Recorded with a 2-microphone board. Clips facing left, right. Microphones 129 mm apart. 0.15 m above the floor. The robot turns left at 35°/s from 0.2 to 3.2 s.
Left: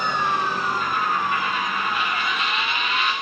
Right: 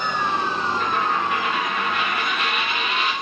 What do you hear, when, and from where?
0.8 s a dropped coin: 70° right, 5.5 m; by 3.1 s 150° right, 5.5 m